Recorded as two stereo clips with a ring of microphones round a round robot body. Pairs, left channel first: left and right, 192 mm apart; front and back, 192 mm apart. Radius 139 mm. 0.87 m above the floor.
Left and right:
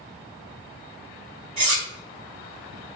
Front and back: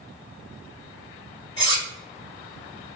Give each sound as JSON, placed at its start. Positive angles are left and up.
{"t": 1.6, "sound": "cutlery clinking", "azimuth_deg": -75, "distance_m": 1.5}